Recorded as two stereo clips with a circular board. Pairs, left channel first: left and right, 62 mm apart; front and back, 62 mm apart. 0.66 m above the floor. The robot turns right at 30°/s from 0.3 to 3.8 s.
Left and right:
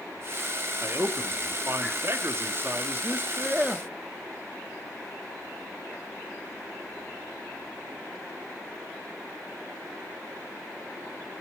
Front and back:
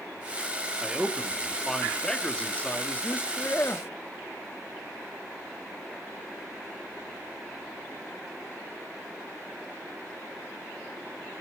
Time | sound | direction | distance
0.8 | a man speaking | 110° right | 1.2 m